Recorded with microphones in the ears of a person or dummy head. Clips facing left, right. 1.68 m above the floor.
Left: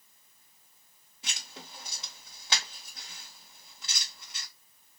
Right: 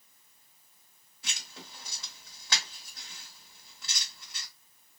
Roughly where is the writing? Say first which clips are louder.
Left 1 dB; left.